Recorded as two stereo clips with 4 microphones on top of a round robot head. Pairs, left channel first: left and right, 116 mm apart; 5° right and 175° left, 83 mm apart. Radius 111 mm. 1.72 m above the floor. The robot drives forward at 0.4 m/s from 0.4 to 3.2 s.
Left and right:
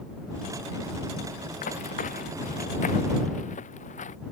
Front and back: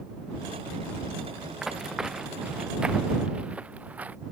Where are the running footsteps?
90° left; by 4.2 s 105° left.